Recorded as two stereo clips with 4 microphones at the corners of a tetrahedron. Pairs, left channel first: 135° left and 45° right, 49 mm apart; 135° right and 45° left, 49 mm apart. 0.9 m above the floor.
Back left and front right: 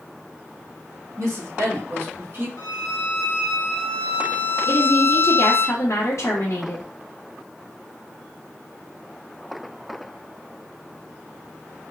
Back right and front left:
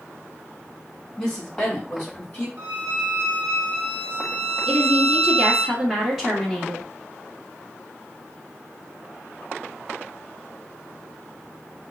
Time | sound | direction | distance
1.2 | a woman speaking | 65° right | 2.5 m
2.6 | a violin | 105° left | 1.6 m
4.7 | a woman speaking | 130° left | 1.3 m